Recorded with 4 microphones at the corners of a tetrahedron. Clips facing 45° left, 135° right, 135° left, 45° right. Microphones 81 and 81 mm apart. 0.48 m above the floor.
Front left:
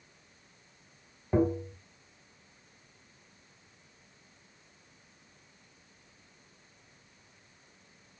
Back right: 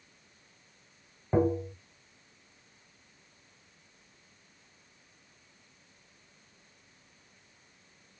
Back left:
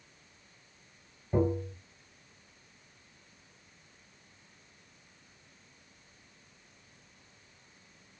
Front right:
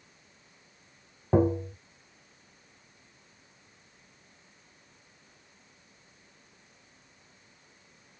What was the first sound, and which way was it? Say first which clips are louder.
Tapping: back right 1 dB, front right 5 dB; 55° right.